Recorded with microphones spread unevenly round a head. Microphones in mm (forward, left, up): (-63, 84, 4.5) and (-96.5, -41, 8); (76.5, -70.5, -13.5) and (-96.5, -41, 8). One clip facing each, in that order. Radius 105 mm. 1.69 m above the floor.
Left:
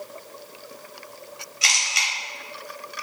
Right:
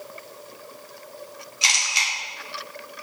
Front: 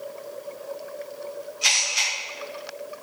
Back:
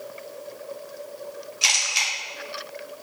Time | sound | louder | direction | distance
1.6 | a camera shutter | even, even | 170° right | 1.6 m